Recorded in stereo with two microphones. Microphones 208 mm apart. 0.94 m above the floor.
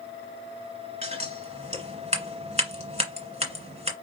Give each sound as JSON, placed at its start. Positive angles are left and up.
{"t": 1.0, "sound": "scissors", "side_deg": -30, "distance_m": 1.8}